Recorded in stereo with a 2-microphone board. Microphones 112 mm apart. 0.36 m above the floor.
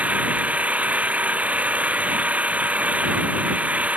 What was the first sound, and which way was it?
An engine running, 10° right (ahead or behind).